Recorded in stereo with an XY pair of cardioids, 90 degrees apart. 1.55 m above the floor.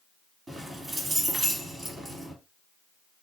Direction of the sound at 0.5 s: 45° right.